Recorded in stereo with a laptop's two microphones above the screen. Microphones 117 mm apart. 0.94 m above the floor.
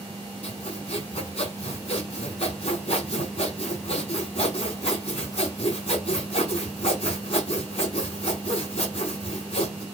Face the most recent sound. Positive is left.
turn(degrees=55)  # may be behind; listen again after turning